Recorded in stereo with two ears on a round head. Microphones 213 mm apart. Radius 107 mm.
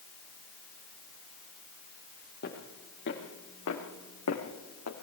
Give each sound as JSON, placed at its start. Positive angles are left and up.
{"t": 2.4, "sound": "footsteps", "side_deg": 45, "distance_m": 5.5}